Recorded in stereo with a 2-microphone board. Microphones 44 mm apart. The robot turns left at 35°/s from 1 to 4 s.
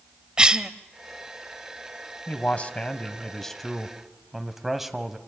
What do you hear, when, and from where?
0.4 s a cough: 20° right (ahead or behind), 1.0 m
2.3 s a man speaking: 55° left, 1.6 m; by 5.2 s 5° right, 1.6 m